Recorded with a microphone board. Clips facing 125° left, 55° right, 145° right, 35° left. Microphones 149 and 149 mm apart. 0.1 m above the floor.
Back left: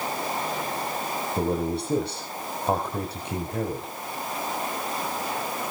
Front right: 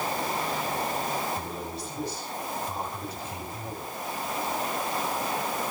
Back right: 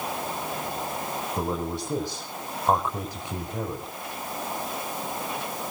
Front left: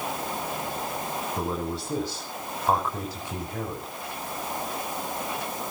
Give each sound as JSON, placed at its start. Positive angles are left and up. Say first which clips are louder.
{"t": 1.4, "sound": "a man speaking", "louder": "back left 10 dB, back right 2 dB", "azimuth_deg": 135, "distance_m": 6.5}